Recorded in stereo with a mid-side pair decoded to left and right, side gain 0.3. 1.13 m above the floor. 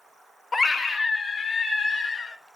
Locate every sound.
0.5 s a scream: 40° left, 1.1 m; by 2.4 s 65° left, 3.5 m